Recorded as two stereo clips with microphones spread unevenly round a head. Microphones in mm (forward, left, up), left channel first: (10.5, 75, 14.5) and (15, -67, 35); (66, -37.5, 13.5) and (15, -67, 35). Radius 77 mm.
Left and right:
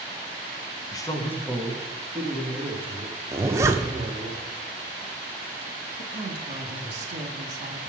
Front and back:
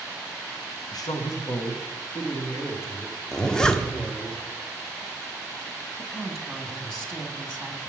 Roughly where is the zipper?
Right.